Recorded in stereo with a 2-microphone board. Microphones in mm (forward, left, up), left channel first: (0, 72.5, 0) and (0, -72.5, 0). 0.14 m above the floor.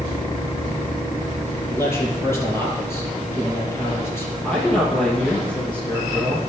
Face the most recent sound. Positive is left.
turn(degrees=10)  # may be behind; listen again after turning